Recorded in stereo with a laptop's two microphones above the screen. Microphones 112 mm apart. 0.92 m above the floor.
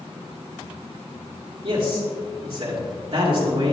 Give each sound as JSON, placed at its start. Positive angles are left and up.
{"t": 1.6, "sound": "a man speaking", "side_deg": -55, "distance_m": 2.0}